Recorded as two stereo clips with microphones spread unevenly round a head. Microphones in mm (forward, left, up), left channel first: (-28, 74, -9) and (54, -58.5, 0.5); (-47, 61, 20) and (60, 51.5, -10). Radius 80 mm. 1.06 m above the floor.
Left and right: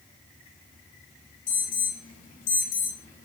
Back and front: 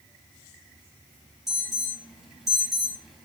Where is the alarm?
80° left, 6 m.